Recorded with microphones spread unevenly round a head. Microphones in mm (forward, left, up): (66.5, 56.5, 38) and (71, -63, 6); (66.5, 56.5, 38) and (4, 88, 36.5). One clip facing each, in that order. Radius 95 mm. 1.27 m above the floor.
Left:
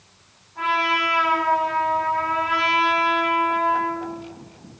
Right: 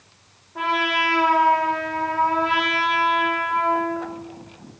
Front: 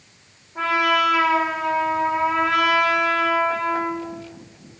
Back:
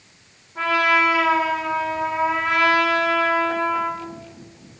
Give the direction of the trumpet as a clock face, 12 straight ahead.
4 o'clock.